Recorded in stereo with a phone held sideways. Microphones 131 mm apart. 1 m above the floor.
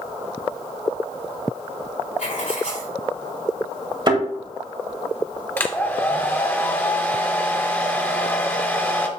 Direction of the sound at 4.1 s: 35° right (ahead or behind).